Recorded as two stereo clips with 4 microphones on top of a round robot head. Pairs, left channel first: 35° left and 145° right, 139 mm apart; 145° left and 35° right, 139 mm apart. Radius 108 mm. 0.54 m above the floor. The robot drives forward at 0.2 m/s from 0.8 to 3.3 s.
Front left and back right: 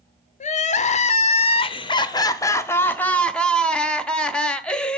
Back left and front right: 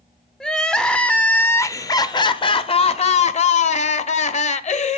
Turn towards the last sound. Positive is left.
turn(degrees=115)